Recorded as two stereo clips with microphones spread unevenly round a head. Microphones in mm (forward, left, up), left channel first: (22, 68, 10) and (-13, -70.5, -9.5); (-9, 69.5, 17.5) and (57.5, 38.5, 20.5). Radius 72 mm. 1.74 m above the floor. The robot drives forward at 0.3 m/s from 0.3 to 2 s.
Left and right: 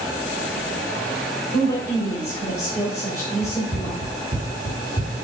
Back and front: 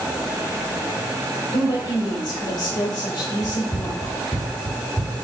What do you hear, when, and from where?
1.5 s a woman speaking: 145° left, 2.5 m
3.4 s running footsteps: 135° right, 1.8 m; by 5.2 s 150° right, 3 m